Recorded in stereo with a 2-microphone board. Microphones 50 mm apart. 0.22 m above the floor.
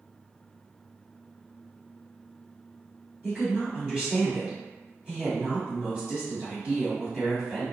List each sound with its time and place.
3.2 s a woman speaking: 20° right (ahead or behind), 1.5 m